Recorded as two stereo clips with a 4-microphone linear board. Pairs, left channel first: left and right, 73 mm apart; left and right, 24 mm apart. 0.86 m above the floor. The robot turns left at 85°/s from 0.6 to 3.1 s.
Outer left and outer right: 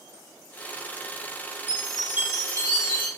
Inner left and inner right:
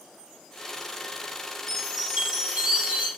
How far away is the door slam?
No door slam in this recording.